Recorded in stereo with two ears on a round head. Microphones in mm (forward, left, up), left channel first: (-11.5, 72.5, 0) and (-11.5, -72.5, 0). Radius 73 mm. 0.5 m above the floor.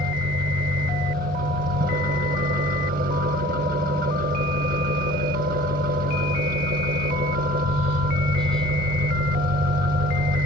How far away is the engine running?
About 1.0 m.